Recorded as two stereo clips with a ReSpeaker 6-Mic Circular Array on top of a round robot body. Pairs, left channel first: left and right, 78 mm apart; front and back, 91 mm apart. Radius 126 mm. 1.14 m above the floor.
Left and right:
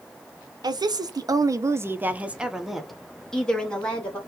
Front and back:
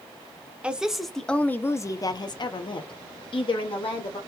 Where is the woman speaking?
105° right, 0.9 m; by 4.2 s 15° left, 1.5 m.